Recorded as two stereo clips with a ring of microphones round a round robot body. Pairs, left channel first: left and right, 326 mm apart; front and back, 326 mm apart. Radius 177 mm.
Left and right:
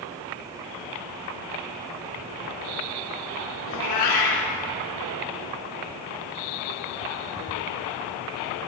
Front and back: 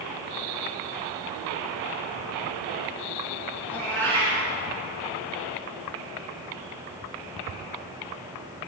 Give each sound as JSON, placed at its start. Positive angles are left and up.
{"t": 3.7, "sound": "a cat meowing", "azimuth_deg": 85, "distance_m": 2.5}